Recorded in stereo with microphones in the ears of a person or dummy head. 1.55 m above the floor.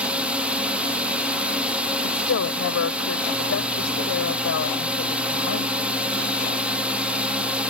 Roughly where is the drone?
Centre.